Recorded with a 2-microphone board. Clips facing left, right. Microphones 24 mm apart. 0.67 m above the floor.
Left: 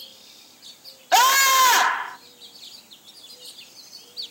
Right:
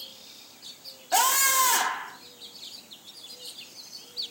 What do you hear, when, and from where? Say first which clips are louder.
1.1 s a scream: left 7 dB; 45° left (ahead or behind), 1.4 m